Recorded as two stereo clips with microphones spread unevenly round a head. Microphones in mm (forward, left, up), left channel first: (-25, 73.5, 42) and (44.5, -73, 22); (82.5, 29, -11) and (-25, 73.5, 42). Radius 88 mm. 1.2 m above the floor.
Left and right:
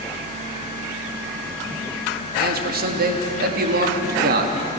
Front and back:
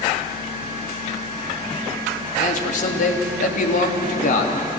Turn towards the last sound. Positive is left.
turn(degrees=-35)